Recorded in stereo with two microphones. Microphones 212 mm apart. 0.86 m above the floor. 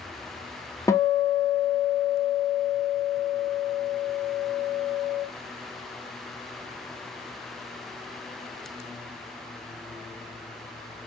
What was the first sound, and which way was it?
A guitar, 15° left (ahead or behind).